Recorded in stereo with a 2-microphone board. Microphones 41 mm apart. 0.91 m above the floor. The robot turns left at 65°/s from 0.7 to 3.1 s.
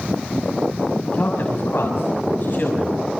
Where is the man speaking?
35° left (ahead or behind), 6 m; by 3.0 s 20° left (ahead or behind), 6 m.